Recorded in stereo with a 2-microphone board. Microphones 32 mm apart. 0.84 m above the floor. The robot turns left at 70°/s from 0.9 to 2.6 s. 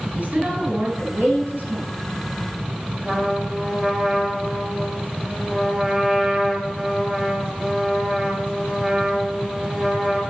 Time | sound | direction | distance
0.1 | a woman speaking | 40° right | 7.5 m
3.0 | a trumpet | 30° right (ahead or behind) | 3.5 m